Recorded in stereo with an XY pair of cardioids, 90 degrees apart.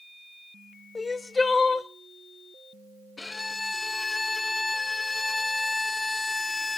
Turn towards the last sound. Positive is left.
turn(degrees=20)